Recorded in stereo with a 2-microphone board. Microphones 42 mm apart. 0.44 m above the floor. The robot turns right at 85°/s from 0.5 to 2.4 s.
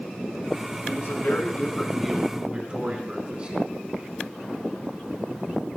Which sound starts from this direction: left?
A man speaking, at 0.9 s.